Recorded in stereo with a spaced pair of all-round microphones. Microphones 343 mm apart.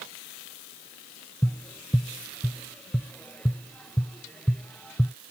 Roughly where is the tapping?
Centre.